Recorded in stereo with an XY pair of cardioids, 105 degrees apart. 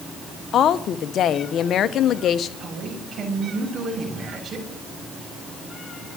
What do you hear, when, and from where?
0.5 s a woman speaking: 65° left, 1.0 m
2.6 s a man speaking: 45° right, 6.5 m